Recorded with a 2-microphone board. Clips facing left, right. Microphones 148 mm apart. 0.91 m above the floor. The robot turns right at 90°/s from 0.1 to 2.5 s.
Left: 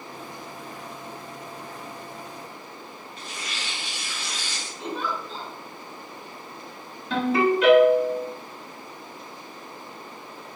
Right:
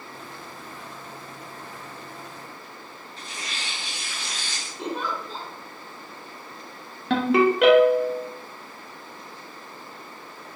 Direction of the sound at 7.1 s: 70° right (ahead or behind).